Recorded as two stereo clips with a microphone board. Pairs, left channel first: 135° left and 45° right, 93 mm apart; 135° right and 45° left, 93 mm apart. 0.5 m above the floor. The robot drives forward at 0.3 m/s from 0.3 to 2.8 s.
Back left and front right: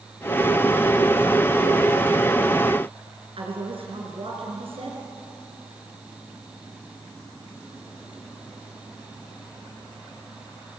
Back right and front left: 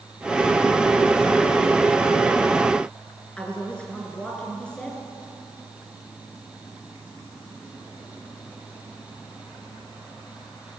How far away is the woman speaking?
About 6.5 m.